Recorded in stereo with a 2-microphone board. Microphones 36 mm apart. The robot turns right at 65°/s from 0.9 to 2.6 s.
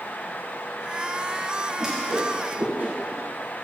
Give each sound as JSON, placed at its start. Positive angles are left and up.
{"t": 1.8, "sound": "a whoosh", "side_deg": -15, "distance_m": 2.0}